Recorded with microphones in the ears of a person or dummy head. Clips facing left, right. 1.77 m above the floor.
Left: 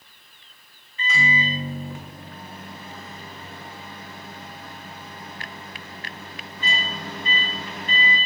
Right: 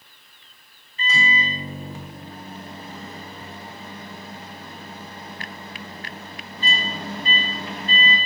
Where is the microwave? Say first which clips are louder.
Even; 30° right (ahead or behind), 1.2 m.